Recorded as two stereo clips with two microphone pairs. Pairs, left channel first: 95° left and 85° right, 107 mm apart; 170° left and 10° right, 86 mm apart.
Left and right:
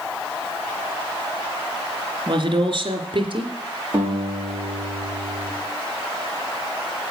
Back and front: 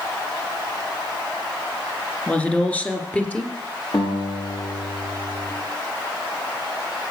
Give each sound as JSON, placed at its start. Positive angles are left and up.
{"t": 2.3, "sound": "a woman speaking", "azimuth_deg": -115, "distance_m": 2.5}
{"t": 3.9, "sound": "a guitar", "azimuth_deg": -145, "distance_m": 8.5}